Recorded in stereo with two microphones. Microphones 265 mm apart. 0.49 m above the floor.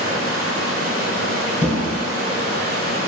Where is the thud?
5° right (ahead or behind), 1.6 m.